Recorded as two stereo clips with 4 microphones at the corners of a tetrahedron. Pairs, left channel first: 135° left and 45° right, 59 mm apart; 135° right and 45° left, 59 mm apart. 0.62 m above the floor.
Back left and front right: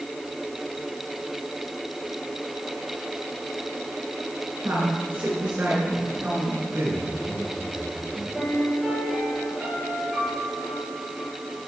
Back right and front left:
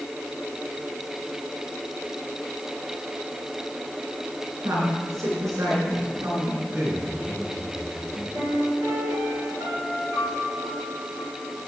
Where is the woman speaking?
15° left, 8.5 m; by 6.6 s 20° left, 10.5 m.